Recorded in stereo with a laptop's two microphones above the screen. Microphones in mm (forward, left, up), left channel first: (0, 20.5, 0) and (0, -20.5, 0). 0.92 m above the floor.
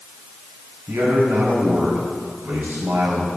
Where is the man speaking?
75° right (ahead or behind), 5 m.